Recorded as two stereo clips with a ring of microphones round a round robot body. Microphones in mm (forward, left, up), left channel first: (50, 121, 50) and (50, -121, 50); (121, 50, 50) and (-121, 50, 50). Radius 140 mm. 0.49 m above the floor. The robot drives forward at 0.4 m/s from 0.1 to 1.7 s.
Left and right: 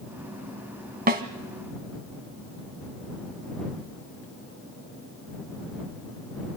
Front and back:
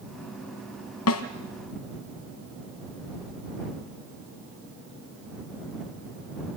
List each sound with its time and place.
1.1 s a snare drum: 35° right, 1.9 m; by 1.2 s 40° right, 1.9 m